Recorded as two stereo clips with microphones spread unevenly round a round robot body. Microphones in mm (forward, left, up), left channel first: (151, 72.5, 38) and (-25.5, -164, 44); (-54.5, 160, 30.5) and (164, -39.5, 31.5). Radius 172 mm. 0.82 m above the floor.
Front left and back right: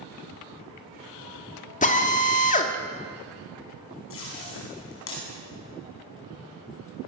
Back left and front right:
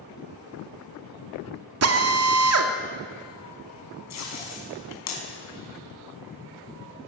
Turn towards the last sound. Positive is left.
turn(degrees=105)